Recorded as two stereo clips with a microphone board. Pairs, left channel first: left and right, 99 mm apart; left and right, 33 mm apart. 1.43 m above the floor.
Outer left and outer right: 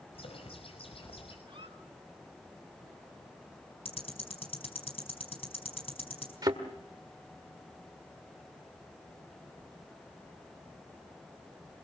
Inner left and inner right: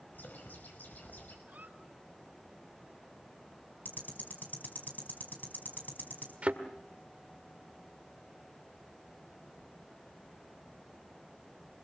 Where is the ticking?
75° left (ahead or behind), 4 m.